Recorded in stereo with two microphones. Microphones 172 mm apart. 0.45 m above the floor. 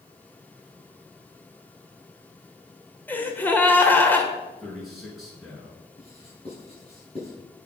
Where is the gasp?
10° left (ahead or behind), 1.7 m.